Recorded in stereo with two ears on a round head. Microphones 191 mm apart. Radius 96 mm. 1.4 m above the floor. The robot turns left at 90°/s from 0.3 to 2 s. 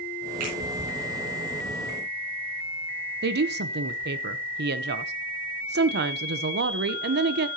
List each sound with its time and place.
0.4 s a finger snap: 80° right, 8 m; by 0.6 s 90° right, 8 m
3.2 s a woman speaking: 50° right (ahead or behind), 0.9 m